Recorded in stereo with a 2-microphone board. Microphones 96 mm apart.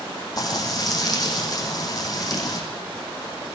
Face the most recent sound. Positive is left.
turn(degrees=40)  # may be behind; listen again after turning